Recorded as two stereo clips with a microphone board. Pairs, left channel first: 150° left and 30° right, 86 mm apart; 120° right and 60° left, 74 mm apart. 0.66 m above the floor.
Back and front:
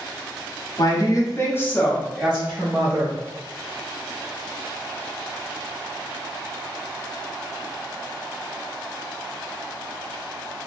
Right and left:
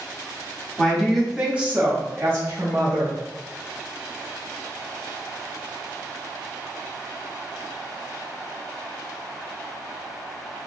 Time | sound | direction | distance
0.8 | a woman speaking | 160° left | 0.9 m